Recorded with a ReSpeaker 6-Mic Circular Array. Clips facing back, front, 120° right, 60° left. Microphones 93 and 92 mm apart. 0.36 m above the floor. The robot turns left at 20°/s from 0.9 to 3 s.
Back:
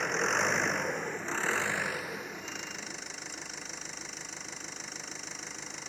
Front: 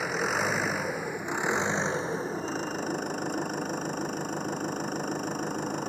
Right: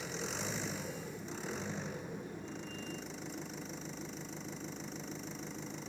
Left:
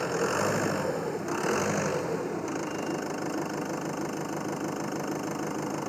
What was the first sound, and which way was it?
An engine running, 85° left.